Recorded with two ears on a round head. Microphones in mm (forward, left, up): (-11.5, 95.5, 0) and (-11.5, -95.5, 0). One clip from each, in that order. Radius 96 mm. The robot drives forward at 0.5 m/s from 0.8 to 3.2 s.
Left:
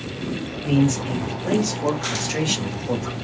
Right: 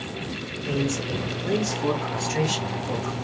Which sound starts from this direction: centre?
A man speaking, at 0.6 s.